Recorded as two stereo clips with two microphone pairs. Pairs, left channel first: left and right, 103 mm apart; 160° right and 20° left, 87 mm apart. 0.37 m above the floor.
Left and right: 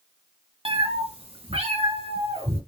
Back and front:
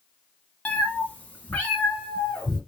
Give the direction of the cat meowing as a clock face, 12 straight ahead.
3 o'clock.